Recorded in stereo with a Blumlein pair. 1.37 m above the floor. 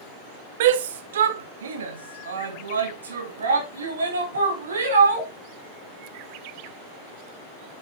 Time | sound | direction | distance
0.6 | a shout | 55° right | 0.9 m